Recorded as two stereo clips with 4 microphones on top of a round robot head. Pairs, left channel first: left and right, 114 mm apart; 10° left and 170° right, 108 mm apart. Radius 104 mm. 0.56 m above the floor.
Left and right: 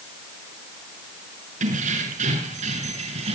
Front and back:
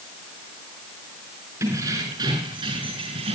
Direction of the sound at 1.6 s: 105° right.